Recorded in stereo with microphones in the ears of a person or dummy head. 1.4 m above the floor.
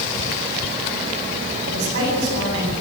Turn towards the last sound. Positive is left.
turn(degrees=-70)  # may be behind; listen again after turning